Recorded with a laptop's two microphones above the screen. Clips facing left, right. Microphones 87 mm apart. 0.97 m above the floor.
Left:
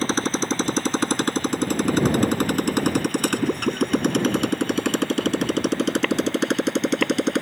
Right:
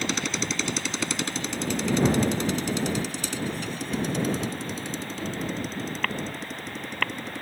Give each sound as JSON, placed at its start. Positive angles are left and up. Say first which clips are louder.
{"t": 0.0, "sound": "a motorcycle", "louder": "left 6 dB", "side_deg": 40}